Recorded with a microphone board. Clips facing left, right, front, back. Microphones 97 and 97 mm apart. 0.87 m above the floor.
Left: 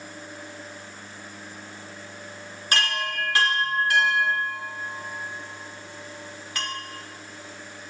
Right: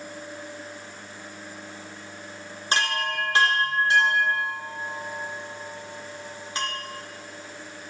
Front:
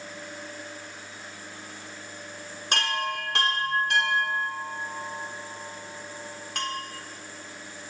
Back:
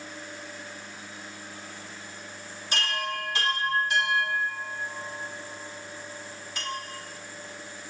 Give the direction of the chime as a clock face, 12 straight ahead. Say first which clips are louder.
Right 1 dB, front 2 dB; 1 o'clock.